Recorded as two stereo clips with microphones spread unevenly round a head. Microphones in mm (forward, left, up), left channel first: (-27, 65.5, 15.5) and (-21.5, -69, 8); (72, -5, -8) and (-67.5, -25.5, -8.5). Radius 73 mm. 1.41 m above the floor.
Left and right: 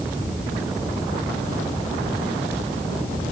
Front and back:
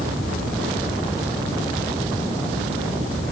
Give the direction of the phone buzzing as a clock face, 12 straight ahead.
No phone buzzing in this recording.